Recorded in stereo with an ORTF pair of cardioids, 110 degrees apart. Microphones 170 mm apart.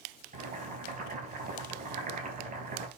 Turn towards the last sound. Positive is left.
turn(degrees=-50)